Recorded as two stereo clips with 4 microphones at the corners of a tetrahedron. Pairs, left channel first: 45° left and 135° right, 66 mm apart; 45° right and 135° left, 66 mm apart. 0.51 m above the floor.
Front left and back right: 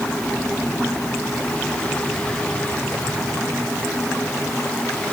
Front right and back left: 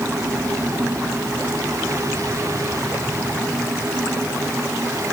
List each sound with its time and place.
Only background noise.